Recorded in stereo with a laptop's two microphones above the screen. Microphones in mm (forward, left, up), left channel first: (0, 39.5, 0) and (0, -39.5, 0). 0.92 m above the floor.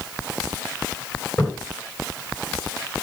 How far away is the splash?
About 4 m.